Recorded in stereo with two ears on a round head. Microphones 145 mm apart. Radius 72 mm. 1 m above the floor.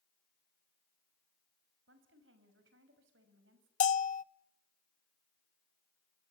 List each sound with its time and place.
1.9 s a woman speaking: 85° right, 5.5 m
3.8 s a bell: 50° left (ahead or behind), 0.6 m